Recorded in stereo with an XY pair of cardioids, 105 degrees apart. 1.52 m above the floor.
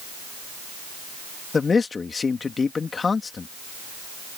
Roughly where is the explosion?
I don't hear an explosion.